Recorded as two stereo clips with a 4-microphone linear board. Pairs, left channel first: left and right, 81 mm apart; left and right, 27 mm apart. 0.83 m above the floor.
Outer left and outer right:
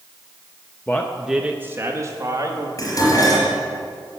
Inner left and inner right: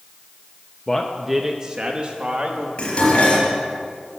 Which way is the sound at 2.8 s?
50° left (ahead or behind).